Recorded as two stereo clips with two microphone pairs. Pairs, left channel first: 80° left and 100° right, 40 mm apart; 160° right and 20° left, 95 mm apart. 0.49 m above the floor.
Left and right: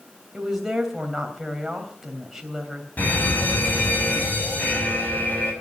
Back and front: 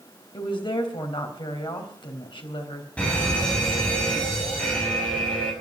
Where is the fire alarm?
120° left, 6 m.